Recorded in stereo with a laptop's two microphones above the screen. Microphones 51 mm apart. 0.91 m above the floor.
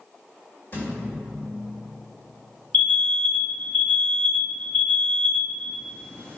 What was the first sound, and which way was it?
A thud, 50° left (ahead or behind).